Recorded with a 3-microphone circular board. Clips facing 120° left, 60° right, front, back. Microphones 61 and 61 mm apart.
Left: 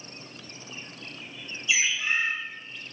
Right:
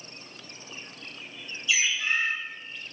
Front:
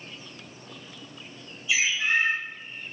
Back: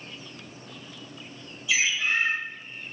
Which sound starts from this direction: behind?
A bird, at 1.7 s.